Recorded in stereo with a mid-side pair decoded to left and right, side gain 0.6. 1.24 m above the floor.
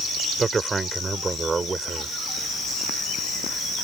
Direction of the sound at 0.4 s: 25° right.